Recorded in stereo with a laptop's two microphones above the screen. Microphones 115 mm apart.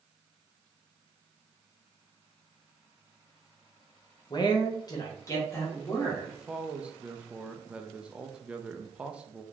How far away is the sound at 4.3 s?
About 0.7 m.